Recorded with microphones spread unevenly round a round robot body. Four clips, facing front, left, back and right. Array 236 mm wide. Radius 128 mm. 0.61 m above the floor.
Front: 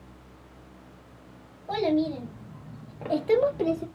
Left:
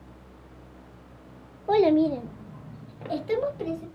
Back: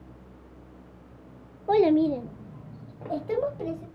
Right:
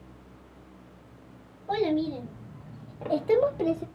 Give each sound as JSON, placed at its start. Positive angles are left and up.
{"t": 1.7, "sound": "a child speaking", "azimuth_deg": 135, "distance_m": 0.8}